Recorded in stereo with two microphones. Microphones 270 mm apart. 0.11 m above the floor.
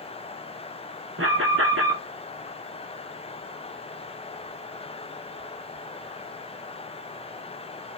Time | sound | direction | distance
1.2 | an alarm | 55° right (ahead or behind) | 1.3 m